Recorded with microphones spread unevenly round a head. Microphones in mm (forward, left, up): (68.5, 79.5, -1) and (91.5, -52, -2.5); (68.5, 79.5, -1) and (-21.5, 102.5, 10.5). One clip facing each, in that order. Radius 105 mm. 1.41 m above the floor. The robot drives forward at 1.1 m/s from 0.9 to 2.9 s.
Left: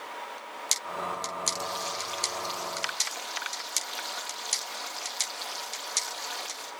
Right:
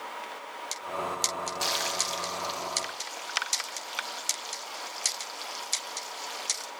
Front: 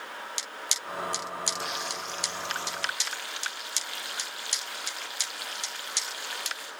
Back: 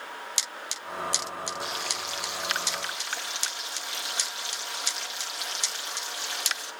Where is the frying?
115° right, 0.5 m; by 6.7 s 165° right, 1.7 m.